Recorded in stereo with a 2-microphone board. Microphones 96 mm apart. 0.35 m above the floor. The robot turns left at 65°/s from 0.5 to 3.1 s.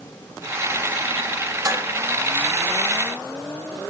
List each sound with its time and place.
1.6 s dishes clattering: 40° right (ahead or behind), 1.7 m; by 1.9 s 25° right (ahead or behind), 1.7 m